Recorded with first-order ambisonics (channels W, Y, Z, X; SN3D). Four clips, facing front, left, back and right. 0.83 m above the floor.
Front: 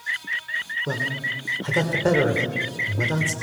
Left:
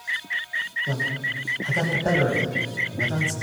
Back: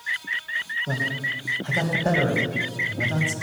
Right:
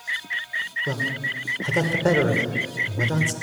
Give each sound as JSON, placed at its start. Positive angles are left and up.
{"t": 0.9, "sound": "a man speaking", "azimuth_deg": -45, "distance_m": 2.5}